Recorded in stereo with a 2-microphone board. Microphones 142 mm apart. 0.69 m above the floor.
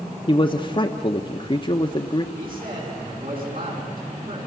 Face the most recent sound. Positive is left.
turn(degrees=-70)  # may be behind; listen again after turning